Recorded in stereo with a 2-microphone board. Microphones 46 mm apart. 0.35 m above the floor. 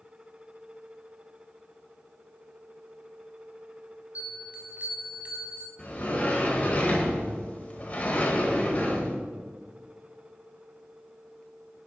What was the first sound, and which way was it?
A bell, 35° right (ahead or behind).